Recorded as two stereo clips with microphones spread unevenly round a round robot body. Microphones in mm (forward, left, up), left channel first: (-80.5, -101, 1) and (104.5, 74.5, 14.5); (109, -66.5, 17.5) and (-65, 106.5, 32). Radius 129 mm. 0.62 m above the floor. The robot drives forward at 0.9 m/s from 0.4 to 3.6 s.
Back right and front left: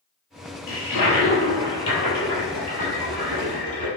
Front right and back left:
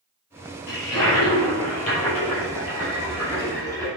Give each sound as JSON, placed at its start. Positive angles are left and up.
{"t": 0.7, "sound": "a toilet flushing", "azimuth_deg": -95, "distance_m": 5.5}